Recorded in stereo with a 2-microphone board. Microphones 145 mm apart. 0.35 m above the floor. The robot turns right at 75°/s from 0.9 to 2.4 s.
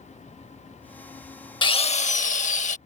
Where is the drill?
40° left; by 2.8 s 100° left.